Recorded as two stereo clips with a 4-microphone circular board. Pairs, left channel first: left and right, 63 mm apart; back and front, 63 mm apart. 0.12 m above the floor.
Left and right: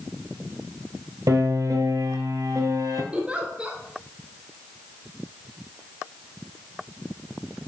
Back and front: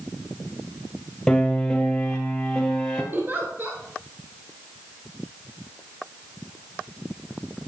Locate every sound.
1.3 s a piano: 105° right, 1.2 m
3.1 s a giggle: 30° right, 1.3 m